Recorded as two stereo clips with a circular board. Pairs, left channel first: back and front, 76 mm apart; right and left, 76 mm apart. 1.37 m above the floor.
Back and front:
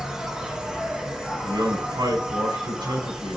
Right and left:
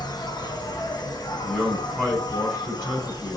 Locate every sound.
0.0 s an insect: 80° right, 1.3 m
1.4 s a man speaking: straight ahead, 6.5 m